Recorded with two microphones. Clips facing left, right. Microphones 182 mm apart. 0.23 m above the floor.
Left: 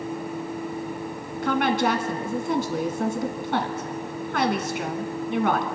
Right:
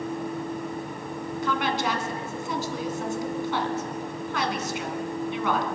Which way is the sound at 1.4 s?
55° left (ahead or behind).